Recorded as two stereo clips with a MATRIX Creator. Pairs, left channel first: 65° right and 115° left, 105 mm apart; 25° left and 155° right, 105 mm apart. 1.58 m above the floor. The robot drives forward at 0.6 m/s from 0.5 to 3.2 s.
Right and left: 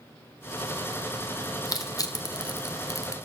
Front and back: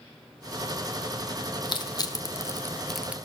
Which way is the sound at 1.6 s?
15° right.